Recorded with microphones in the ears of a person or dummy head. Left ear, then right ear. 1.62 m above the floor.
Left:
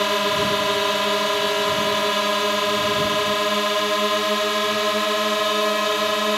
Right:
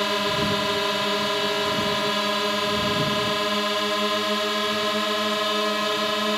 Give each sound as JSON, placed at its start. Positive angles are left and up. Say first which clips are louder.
{"t": 0.0, "sound": "a drone", "louder": "left 3 dB", "side_deg": 20}